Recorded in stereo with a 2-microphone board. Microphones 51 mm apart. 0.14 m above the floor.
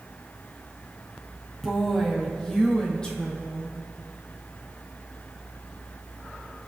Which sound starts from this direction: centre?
A woman speaking, at 1.6 s.